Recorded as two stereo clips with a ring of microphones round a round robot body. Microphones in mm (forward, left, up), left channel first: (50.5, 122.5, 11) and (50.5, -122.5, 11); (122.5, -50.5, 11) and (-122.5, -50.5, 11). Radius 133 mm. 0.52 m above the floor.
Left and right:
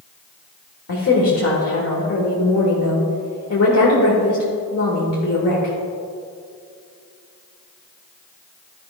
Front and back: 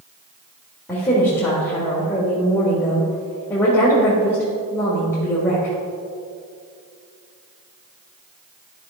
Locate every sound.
0.9 s a woman speaking: 80° left, 1.6 m